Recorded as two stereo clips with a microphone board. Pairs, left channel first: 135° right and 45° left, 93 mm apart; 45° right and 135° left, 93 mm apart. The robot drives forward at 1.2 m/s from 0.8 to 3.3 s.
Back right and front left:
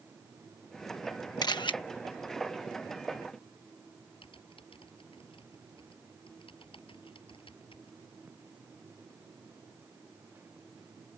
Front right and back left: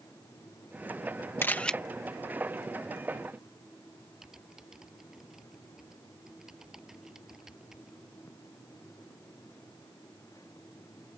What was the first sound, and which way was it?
A camera shutter, 105° right.